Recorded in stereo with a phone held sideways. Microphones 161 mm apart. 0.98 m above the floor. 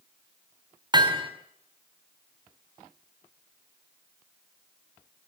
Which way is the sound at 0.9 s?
30° right (ahead or behind).